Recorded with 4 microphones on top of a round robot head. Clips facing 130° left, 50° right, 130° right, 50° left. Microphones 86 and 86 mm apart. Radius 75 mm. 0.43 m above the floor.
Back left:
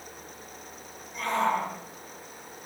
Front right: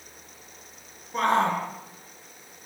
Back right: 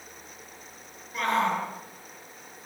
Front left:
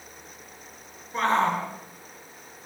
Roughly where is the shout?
Ahead.